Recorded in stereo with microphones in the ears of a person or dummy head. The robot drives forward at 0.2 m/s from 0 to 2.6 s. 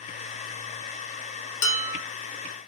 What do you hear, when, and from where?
1.6 s dishes clattering: 65° left (ahead or behind), 1.2 m